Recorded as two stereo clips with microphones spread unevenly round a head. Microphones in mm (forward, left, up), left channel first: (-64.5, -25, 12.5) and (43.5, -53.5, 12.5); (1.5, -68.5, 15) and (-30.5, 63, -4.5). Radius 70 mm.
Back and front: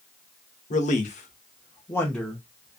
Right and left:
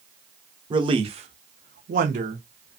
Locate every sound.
0.7 s a man speaking: 155° left, 0.8 m; by 2.8 s 55° left, 0.8 m